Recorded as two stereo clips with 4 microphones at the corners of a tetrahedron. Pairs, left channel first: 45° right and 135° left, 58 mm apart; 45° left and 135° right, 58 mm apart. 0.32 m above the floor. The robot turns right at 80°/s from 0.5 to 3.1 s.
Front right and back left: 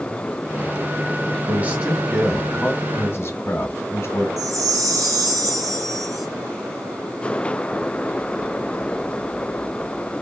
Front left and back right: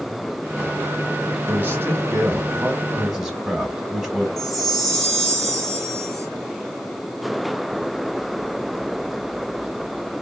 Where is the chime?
130° left, 2 m.